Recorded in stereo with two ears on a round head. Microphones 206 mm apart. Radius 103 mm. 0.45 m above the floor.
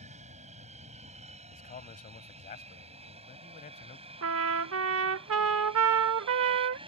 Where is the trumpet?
65° right (ahead or behind).